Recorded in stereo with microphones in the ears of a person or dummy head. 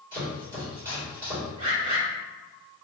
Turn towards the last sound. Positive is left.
turn(degrees=-35)  # may be behind; listen again after turning